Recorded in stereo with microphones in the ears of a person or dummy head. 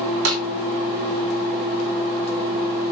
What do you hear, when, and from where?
0.2 s a snare drum: 85° right, 2.5 m